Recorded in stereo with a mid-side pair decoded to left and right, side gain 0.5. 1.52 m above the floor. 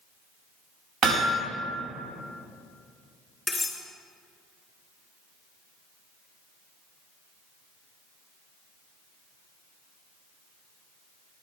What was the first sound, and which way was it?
Hammering, 65° right.